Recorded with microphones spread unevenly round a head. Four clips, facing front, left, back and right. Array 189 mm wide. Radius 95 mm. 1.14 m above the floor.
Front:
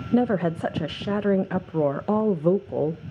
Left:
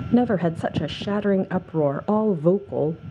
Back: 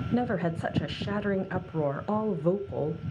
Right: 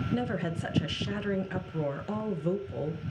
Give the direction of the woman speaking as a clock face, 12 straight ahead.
11 o'clock.